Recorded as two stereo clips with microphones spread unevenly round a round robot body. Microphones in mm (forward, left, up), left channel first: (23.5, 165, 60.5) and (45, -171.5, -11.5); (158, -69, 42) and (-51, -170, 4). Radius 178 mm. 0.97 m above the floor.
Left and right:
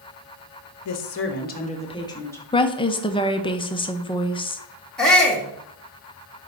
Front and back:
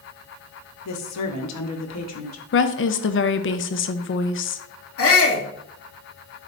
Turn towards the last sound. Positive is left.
turn(degrees=5)